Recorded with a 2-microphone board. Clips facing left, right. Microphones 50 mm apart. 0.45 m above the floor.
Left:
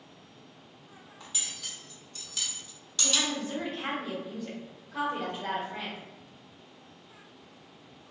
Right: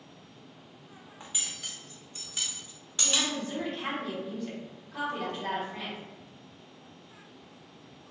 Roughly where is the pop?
No pop in this recording.